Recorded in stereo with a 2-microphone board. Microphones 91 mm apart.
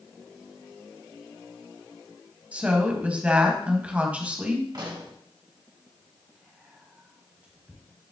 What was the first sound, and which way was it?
A woman speaking, 15° right (ahead or behind).